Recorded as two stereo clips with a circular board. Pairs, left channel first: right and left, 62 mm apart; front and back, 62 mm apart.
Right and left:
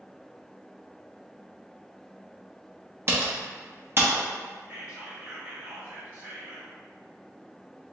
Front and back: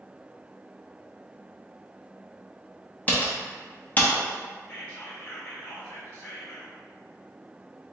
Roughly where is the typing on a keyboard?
Ahead left.